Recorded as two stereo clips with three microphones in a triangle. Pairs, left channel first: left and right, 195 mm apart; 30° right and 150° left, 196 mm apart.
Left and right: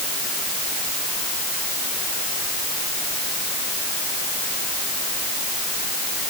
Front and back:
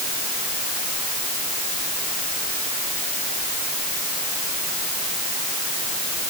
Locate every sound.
Only background noise.